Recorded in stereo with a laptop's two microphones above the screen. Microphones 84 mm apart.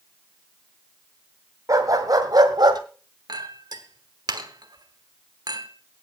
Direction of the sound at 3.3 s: 55° right (ahead or behind).